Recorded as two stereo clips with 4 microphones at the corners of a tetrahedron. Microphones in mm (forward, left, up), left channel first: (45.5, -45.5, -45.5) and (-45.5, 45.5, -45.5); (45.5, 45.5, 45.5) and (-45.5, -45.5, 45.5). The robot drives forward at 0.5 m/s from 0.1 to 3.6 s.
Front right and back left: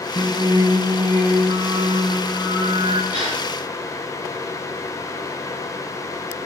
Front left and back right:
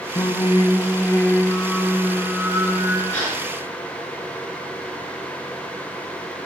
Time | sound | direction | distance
0.1 | singing | 75° left | 1.0 m
3.1 | a gasp | 120° left | 4.5 m